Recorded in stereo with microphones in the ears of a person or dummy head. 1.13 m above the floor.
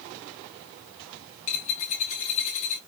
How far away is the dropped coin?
About 1.3 m.